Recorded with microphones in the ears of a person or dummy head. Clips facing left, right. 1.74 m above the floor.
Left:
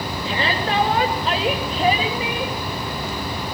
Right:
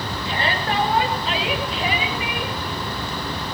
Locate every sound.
0.2 s a shout: 70° left (ahead or behind), 3 m; by 2.5 s 25° left (ahead or behind), 3 m